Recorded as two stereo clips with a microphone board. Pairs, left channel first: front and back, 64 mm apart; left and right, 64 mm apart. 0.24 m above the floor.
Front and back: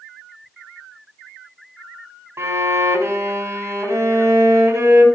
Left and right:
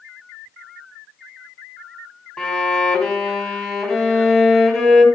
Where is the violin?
160° left, 1.8 m.